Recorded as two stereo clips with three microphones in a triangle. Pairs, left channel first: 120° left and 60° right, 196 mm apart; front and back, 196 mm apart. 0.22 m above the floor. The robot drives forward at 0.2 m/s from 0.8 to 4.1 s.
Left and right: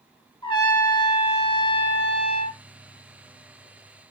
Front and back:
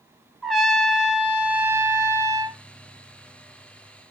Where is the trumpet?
90° left, 0.9 m; by 2.6 s 130° left, 1.0 m.